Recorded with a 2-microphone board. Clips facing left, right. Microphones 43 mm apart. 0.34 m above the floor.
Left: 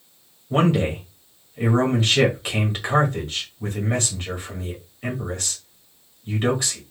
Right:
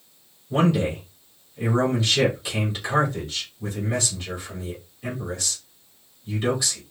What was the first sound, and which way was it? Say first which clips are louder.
A man speaking: left 1 dB; 45° left (ahead or behind).